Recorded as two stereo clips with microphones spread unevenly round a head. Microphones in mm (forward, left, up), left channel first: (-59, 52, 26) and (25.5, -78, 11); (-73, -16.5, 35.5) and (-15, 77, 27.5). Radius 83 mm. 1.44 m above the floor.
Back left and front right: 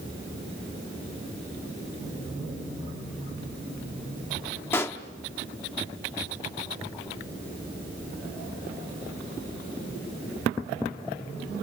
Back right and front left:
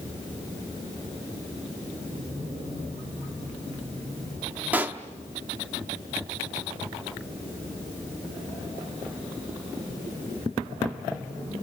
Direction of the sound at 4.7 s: 120° left.